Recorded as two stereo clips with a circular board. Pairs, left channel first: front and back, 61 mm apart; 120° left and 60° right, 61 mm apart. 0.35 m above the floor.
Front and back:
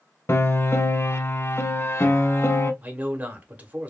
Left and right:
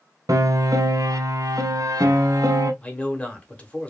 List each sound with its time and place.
0.3 s a piano: 45° right, 0.6 m
2.8 s a man speaking: 160° left, 1.0 m